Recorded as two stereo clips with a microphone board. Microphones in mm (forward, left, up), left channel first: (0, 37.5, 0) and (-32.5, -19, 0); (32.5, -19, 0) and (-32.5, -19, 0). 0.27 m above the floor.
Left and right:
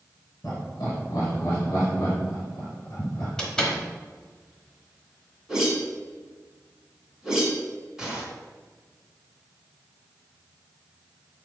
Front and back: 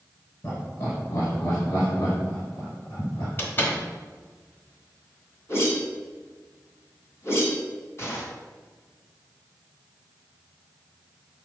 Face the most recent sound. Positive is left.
turn(degrees=-40)